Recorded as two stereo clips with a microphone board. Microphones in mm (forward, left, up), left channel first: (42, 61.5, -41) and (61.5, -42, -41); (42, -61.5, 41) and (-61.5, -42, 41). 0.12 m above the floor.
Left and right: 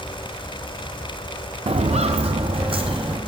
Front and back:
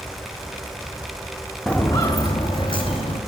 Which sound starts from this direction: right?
Footsteps, at 1.7 s.